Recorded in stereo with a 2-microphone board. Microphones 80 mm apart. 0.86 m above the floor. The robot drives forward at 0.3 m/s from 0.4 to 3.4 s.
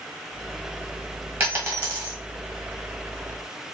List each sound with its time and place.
1.4 s a dropped coin: 30° right (ahead or behind), 1.6 m